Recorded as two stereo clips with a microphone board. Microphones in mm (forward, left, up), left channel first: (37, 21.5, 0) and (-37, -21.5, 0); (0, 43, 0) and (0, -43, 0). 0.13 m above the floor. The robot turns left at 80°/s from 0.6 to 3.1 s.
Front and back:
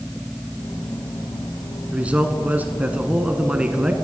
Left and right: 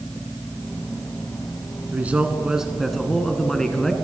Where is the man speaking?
100° right, 1.1 m; by 3.9 s 165° left, 1.1 m.